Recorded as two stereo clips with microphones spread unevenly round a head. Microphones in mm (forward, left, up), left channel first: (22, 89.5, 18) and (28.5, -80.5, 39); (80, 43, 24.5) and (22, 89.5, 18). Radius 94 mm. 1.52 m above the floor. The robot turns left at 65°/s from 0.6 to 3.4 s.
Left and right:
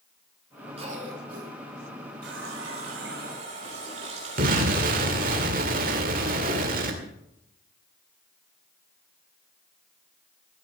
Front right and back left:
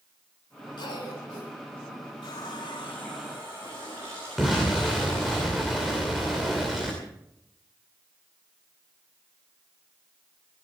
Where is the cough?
30° right, 5 m; by 1.5 s 80° right, 5 m.